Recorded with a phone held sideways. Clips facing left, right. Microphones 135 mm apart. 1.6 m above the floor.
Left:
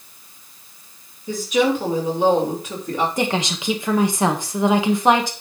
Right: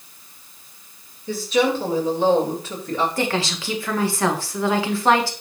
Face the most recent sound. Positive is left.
turn(degrees=20)  # may be behind; listen again after turning